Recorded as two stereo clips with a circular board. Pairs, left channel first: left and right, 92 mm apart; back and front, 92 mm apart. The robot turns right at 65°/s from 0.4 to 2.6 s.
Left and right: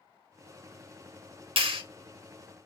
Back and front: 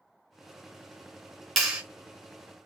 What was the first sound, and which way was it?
A clap, 90° right.